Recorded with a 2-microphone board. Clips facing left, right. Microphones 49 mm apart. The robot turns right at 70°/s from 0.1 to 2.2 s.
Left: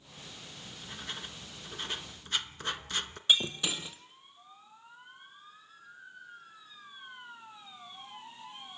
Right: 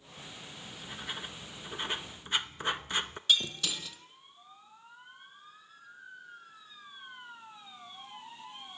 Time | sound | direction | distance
0.6 | writing | centre (ahead or behind) | 0.8 m
3.3 | breaking glass | 20° left (ahead or behind) | 1.5 m